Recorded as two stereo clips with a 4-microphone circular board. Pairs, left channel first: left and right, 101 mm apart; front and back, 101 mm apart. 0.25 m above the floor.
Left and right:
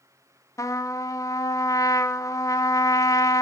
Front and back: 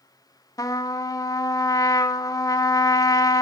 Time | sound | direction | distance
0.6 | a trumpet | 40° left | 1.1 m